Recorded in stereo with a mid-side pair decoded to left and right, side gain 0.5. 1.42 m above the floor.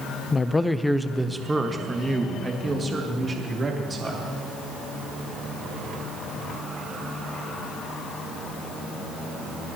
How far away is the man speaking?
About 0.7 m.